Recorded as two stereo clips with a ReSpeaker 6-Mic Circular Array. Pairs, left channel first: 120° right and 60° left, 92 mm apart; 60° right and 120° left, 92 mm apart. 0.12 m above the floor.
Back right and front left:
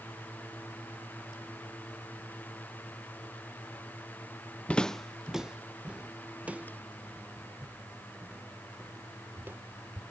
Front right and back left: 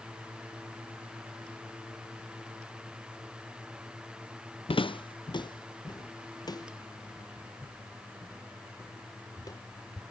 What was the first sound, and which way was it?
Footsteps, 45° right.